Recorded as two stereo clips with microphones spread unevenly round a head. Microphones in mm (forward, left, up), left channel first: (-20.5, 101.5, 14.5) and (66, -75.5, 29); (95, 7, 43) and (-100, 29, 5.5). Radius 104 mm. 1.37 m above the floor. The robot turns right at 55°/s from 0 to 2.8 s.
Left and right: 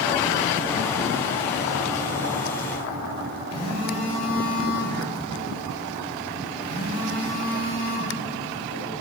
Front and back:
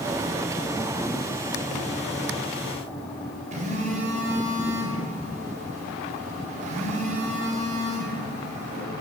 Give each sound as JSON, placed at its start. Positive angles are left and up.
{"t": 3.5, "sound": "a phone buzzing", "azimuth_deg": 115, "distance_m": 1.7}